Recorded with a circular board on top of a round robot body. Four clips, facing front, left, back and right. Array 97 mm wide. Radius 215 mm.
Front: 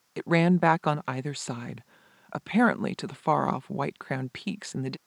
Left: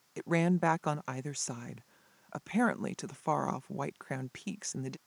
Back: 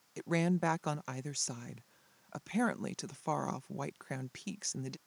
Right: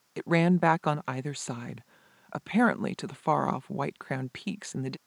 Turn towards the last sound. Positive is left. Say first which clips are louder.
# right 5 dB, front 9 dB
turn(degrees=-25)